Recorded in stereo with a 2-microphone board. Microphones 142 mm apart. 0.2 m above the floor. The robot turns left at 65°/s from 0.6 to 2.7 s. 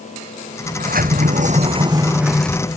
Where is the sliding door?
70° right; by 2.8 s 160° left.